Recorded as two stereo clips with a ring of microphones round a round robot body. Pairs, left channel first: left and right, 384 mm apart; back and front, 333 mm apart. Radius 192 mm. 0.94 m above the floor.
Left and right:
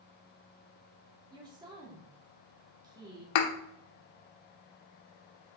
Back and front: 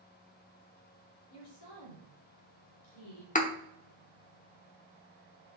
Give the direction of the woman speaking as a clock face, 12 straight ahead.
6 o'clock.